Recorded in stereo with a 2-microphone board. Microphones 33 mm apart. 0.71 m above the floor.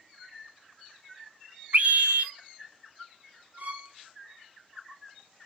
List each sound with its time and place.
1.7 s a scream: 55° right (ahead or behind), 1.2 m
3.6 s a violin: 60° right (ahead or behind), 2 m